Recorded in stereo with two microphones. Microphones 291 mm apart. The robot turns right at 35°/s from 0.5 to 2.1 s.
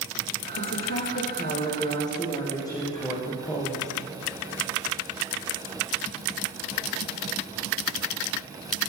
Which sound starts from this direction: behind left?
A woman speaking, at 0.6 s.